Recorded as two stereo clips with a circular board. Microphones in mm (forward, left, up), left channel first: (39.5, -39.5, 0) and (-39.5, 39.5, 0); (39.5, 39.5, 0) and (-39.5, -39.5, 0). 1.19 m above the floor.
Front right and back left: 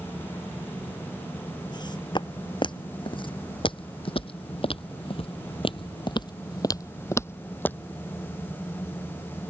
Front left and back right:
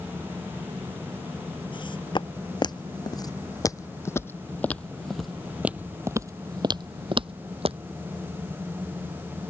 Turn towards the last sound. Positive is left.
turn(degrees=-120)